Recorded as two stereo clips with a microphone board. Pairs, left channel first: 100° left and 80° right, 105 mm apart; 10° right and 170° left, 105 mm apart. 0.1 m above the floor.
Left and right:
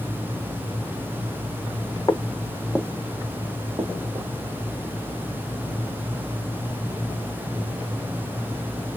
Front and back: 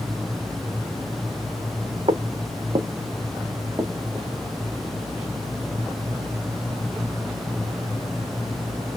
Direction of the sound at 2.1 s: 150° left.